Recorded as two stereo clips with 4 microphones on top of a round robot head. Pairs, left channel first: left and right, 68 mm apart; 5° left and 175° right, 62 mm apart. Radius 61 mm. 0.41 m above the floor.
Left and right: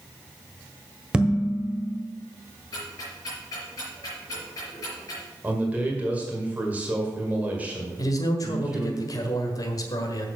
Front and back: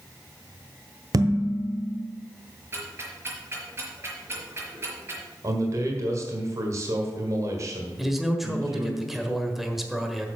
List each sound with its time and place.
1.1 s dishes clattering: 165° right, 1.4 m
2.7 s ticking: 135° left, 4.5 m
5.4 s a man speaking: 155° right, 2.0 m
8.0 s a man speaking: 95° left, 1.5 m